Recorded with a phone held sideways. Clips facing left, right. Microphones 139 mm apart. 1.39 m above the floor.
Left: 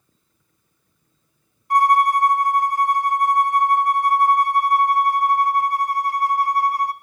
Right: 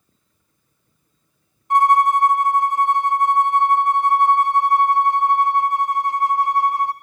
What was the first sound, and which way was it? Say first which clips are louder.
A violin: right 1 dB; 20° right (ahead or behind).